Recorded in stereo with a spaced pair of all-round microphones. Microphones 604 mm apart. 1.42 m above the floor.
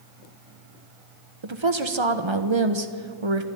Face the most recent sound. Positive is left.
turn(degrees=-50)  # may be behind; listen again after turning